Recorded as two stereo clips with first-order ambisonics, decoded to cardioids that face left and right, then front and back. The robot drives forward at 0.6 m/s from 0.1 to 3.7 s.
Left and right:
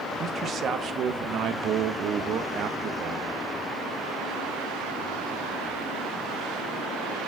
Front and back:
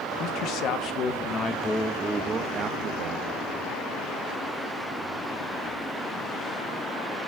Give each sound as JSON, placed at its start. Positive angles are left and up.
{"t": 0.2, "sound": "a man speaking", "azimuth_deg": -25, "distance_m": 1.3}